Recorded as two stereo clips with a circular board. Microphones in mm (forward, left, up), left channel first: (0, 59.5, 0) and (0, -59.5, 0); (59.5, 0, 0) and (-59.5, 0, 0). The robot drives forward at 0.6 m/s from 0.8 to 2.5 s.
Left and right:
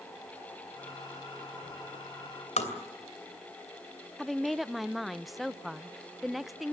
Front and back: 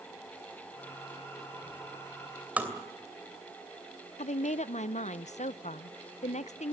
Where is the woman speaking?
Straight ahead, 0.5 m.